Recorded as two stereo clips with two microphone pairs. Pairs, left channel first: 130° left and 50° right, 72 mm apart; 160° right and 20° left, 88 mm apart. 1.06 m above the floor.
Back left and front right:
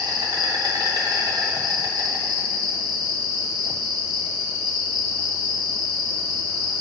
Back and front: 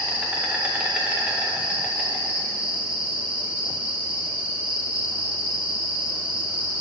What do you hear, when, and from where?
0.0 s an insect: 55° right, 0.9 m